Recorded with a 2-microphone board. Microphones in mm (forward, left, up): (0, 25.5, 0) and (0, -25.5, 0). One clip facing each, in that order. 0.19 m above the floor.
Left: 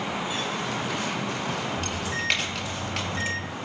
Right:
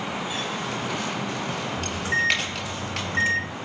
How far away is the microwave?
About 1.8 m.